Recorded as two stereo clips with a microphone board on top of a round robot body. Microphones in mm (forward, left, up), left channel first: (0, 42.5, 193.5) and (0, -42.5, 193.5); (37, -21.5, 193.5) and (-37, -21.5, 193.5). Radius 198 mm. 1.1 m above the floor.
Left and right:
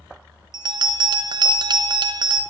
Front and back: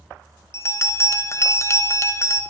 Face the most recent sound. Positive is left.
turn(degrees=-55)